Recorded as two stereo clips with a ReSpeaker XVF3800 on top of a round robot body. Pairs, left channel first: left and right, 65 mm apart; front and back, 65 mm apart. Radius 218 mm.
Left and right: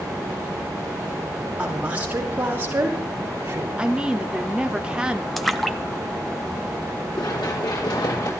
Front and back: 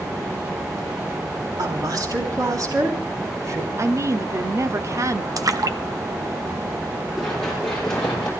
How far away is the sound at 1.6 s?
About 6 m.